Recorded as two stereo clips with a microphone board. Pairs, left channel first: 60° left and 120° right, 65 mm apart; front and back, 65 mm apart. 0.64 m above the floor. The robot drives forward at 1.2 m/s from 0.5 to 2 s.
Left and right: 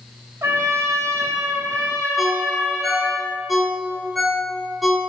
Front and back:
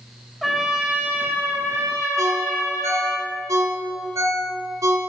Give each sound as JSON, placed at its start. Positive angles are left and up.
{"t": 0.4, "sound": "a trumpet", "azimuth_deg": -90, "distance_m": 1.4}
{"t": 2.2, "sound": "a ringtone", "azimuth_deg": 150, "distance_m": 1.3}